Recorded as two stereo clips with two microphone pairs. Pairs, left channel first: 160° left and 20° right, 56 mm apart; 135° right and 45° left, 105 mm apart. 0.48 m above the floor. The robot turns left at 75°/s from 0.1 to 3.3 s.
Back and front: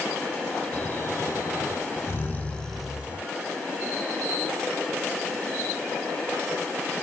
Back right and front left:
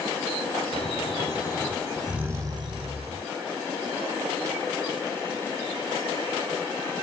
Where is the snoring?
135° right, 2.0 m; by 3.3 s 35° left, 2.0 m.